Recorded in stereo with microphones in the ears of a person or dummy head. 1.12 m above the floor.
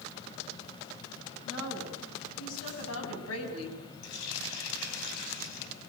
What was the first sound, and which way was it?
A woman speaking, 80° left.